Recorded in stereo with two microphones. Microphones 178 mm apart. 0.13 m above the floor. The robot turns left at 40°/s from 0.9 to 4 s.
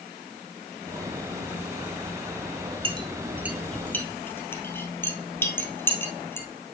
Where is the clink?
30° right (ahead or behind), 2.0 m; by 6.5 s 10° left (ahead or behind), 2.0 m.